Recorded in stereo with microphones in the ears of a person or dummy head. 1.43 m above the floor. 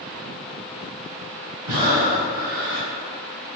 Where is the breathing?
45° right (ahead or behind), 3.5 m.